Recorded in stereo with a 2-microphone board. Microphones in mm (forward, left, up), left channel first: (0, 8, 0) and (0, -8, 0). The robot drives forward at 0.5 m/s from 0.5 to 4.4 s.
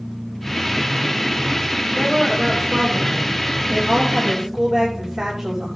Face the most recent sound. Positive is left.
turn(degrees=-45)  # may be behind; listen again after turning